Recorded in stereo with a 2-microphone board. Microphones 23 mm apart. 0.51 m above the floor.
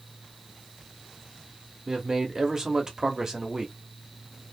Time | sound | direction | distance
1.9 | a man speaking | 25° right (ahead or behind) | 0.8 m